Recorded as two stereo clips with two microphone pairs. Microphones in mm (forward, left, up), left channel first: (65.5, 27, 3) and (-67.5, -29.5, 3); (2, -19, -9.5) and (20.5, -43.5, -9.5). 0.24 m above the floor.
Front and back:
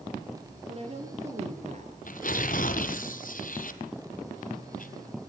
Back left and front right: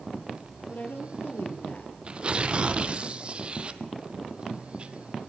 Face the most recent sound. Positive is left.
turn(degrees=5)